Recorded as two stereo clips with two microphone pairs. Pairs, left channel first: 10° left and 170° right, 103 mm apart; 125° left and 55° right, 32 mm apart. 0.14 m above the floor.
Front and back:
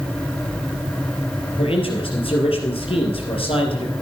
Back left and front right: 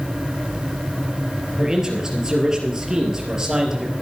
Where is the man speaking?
15° left, 3.5 m.